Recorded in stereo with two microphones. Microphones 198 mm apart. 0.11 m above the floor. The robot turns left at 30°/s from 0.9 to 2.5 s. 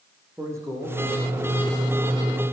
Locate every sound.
0.4 s a man speaking: 165° right, 7 m; by 2.0 s 160° left, 7 m